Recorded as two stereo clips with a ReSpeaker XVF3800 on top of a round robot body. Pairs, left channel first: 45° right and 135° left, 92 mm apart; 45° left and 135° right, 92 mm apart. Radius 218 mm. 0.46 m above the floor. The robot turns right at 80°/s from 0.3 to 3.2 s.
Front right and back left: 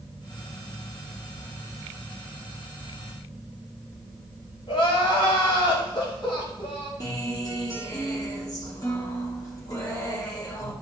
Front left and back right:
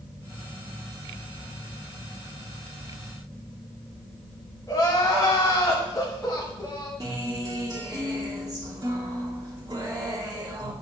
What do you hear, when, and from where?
4.7 s crying: 10° right, 1.2 m
7.0 s a guitar: 95° right, 2 m